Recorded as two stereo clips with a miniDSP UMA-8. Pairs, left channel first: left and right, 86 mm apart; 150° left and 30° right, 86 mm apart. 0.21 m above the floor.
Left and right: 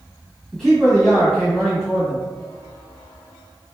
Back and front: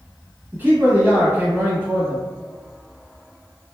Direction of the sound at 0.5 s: 15° left.